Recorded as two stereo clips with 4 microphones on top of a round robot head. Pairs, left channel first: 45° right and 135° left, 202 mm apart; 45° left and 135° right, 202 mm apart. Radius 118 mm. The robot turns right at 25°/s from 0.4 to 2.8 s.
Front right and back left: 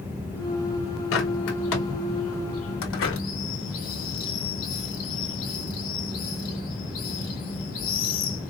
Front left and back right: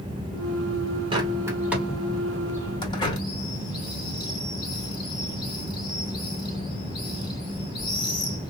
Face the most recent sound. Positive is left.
turn(degrees=-25)